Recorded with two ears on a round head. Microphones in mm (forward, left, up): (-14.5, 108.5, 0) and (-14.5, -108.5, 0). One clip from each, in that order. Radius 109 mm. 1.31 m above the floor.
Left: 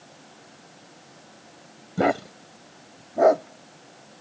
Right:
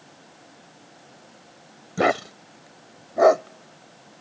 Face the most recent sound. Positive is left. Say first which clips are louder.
# right 2 dB
turn(degrees=-45)  # may be behind; listen again after turning